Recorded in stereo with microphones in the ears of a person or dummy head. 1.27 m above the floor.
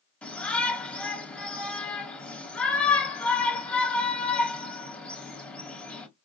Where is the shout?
5° left (ahead or behind), 1.8 m.